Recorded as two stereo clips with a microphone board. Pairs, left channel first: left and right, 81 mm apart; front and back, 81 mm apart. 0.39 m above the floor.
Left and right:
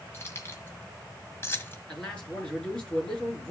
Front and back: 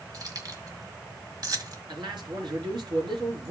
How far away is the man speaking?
About 6 m.